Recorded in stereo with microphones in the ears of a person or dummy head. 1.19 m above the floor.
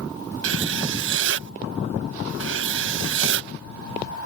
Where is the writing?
60° right (ahead or behind).